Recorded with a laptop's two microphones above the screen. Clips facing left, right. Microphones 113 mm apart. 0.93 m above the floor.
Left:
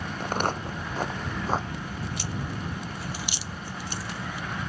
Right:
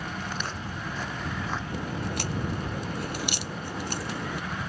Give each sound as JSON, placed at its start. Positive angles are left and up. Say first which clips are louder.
{"t": 0.2, "sound": "footsteps", "louder": "left 6 dB", "side_deg": 55}
{"t": 1.7, "sound": "a crack", "louder": "right 3 dB", "side_deg": -55}